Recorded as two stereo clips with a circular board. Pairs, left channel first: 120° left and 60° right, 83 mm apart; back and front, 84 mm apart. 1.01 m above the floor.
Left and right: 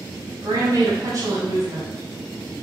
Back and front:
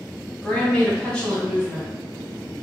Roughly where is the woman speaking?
Right.